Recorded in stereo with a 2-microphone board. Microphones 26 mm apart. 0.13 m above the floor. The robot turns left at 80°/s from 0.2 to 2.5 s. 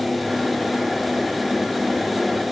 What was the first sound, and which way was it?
Only background noise.